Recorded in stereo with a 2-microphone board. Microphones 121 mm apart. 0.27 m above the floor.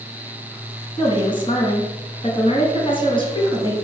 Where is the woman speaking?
40° left (ahead or behind), 2.5 m.